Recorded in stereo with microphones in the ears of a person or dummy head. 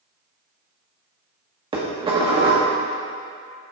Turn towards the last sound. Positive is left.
turn(degrees=-25)  # may be behind; listen again after turning